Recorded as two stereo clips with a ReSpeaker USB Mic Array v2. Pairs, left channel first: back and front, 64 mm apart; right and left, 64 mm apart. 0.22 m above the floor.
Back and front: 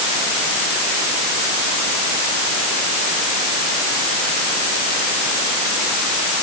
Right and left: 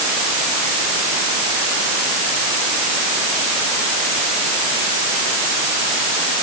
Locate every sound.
Only background noise.